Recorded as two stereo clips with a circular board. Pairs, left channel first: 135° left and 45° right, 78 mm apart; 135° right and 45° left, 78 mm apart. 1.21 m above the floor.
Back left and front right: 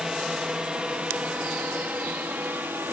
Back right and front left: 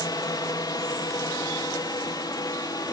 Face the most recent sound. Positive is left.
turn(degrees=-110)